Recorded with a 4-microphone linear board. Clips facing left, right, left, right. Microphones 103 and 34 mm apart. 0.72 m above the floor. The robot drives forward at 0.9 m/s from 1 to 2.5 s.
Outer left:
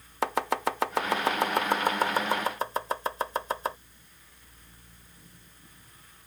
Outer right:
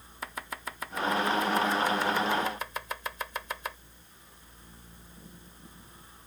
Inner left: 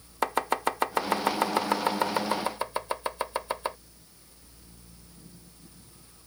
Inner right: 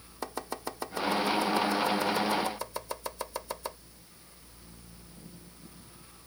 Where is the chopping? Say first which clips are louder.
Outer left 12 dB, inner left 10 dB; 80° left; by 3.8 s 35° left (ahead or behind).